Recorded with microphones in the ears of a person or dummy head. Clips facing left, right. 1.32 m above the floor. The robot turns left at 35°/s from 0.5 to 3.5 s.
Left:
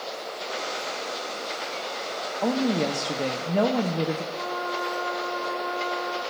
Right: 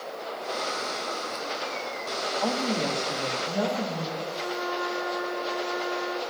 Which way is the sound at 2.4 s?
150° left.